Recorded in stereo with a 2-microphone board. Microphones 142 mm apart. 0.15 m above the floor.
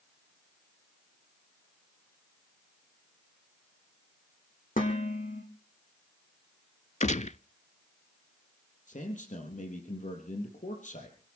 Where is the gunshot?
60° left (ahead or behind), 0.5 m.